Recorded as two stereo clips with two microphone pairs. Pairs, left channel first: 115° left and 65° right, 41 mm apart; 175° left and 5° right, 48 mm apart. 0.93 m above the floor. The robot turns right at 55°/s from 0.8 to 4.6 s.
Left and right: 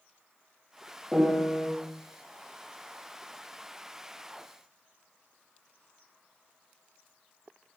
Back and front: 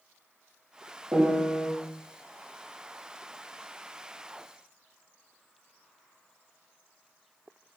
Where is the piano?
25° left, 1.2 m; by 1.7 s 55° left, 1.2 m.